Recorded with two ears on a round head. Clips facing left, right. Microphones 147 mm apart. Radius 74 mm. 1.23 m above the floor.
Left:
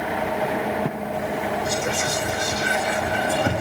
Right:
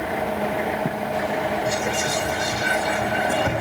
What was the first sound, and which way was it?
Whispering, 50° left (ahead or behind).